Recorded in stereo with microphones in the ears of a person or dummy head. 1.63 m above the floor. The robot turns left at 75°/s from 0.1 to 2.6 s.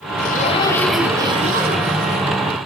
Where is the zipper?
55° left, 5.5 m; by 2.3 s 105° right, 5.5 m.